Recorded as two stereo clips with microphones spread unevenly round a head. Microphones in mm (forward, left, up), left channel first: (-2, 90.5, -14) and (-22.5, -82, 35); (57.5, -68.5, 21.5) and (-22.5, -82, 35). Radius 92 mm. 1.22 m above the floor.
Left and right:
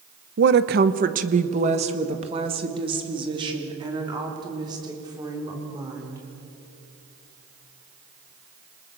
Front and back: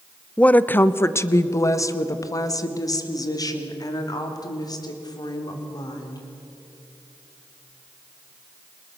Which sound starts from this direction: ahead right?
A woman speaking, at 0.4 s.